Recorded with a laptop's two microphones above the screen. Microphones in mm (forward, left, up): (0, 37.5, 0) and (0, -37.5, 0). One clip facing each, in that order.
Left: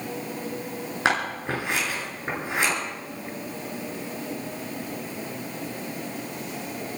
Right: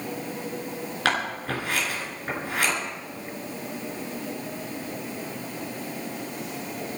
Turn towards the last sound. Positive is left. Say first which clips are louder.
# left 1 dB
turn(degrees=20)  # may be behind; listen again after turning